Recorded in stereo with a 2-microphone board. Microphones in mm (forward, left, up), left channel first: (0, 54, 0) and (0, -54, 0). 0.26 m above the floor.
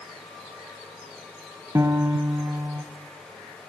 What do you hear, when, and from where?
1.8 s a piano: 30° right (ahead or behind), 1.2 m